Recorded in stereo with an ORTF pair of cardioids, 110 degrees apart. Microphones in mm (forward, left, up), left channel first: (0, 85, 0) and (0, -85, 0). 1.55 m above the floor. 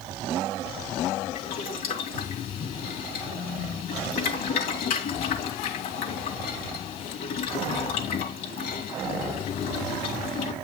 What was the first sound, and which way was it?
Boiling, 60° left.